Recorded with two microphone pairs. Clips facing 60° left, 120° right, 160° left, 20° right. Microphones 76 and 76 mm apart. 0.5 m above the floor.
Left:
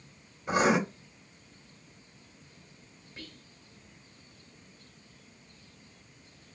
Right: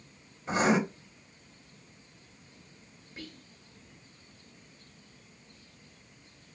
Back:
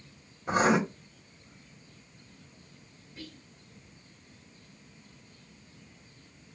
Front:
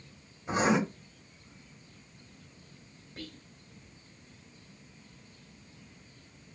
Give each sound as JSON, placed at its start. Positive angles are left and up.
{"t": 0.5, "sound": "writing", "azimuth_deg": 140, "distance_m": 2.5}
{"t": 3.2, "sound": "whispering", "azimuth_deg": -45, "distance_m": 1.5}